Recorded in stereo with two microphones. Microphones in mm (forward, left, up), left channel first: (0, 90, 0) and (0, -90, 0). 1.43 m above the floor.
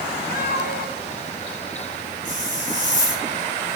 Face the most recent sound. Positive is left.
turn(degrees=85)